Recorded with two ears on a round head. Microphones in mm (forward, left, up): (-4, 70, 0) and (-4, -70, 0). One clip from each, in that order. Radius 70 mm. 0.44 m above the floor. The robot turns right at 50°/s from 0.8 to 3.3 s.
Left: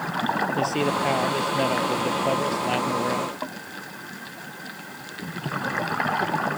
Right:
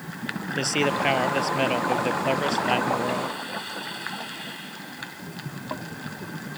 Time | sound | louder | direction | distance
0.6 | a man speaking | even | 130° right | ?